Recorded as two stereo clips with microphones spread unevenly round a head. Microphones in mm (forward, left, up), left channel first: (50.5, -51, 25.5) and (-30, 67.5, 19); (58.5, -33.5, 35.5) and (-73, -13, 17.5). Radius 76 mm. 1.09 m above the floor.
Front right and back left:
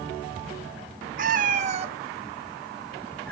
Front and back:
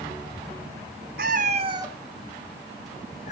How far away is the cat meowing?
About 1.5 m.